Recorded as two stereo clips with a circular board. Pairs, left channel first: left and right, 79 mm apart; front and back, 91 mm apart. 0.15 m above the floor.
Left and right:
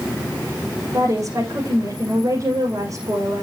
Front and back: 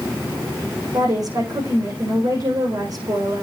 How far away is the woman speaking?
About 7.5 m.